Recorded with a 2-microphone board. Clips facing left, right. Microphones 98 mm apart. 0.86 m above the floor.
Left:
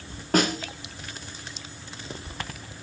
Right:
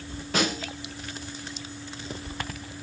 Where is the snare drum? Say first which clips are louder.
Left 4 dB; 50° left (ahead or behind), 1.7 m.